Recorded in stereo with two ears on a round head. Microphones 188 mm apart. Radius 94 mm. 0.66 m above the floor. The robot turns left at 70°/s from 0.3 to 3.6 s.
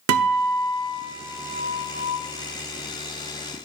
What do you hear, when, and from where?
0.1 s a guitar: 100° right, 0.7 m; by 2.2 s 130° left, 0.7 m